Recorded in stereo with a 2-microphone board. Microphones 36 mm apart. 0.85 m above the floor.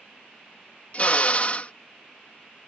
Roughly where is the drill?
Left.